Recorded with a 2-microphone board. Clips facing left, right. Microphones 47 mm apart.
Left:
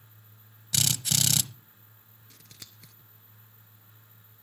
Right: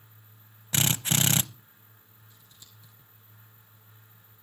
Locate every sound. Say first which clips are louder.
0.7 s a drill: right 3 dB; 35° right (ahead or behind), 0.6 m
2.3 s scissors: left 6 dB; 80° left, 1.2 m